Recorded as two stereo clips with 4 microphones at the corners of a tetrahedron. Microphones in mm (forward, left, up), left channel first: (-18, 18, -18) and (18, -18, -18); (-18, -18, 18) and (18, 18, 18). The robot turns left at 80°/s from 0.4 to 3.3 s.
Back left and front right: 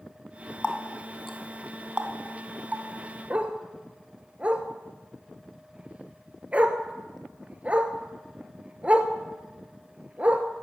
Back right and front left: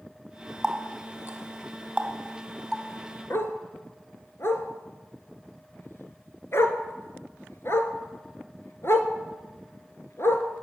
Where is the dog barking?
105° right, 0.9 m.